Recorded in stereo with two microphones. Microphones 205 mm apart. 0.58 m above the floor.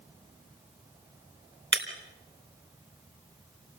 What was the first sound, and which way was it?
Breaking glass, 70° right (ahead or behind).